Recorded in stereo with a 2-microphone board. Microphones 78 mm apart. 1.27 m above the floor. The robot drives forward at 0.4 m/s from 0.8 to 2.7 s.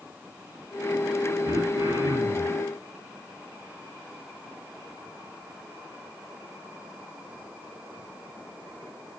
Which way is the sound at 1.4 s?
70° right (ahead or behind).